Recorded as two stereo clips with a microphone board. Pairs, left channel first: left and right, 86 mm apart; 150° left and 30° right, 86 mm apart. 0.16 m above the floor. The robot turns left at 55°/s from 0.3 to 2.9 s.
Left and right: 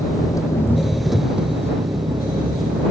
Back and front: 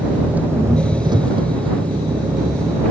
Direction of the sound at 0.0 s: 45° left.